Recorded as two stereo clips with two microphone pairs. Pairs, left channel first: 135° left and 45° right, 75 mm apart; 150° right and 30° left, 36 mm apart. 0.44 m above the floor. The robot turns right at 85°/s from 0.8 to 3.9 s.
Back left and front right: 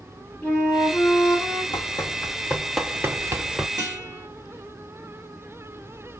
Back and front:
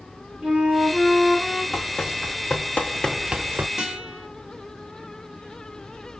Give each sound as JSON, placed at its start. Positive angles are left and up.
{"t": 0.4, "sound": "a flute", "azimuth_deg": 65, "distance_m": 1.7}
{"t": 1.7, "sound": "running footsteps", "azimuth_deg": 120, "distance_m": 1.8}
{"t": 3.8, "sound": "a guitar", "azimuth_deg": -35, "distance_m": 1.7}